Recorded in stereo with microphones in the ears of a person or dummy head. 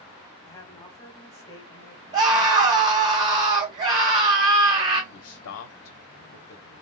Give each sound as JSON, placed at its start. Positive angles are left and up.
{"t": 0.5, "sound": "a woman speaking", "side_deg": 20, "distance_m": 1.0}
{"t": 2.1, "sound": "a scream", "side_deg": -35, "distance_m": 1.2}
{"t": 5.1, "sound": "a man speaking", "side_deg": 70, "distance_m": 0.5}